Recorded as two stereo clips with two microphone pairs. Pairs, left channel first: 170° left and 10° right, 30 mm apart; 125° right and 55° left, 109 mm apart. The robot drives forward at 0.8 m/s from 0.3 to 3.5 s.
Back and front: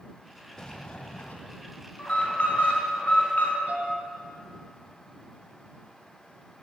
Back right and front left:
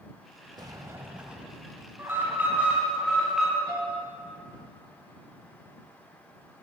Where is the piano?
10° right, 3.5 m.